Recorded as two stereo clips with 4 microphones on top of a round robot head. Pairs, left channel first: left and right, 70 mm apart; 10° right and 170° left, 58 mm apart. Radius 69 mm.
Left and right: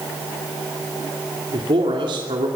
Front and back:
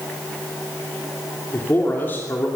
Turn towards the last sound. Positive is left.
turn(degrees=-75)